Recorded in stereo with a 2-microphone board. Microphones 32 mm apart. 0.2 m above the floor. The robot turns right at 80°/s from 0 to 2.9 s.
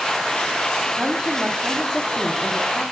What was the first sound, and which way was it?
A woman speaking, 20° right (ahead or behind).